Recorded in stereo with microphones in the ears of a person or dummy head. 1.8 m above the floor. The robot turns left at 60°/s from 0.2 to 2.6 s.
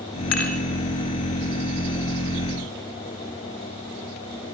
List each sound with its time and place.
0.3 s dishes clattering: 70° left (ahead or behind), 3.5 m; by 0.6 s 75° left (ahead or behind), 3.5 m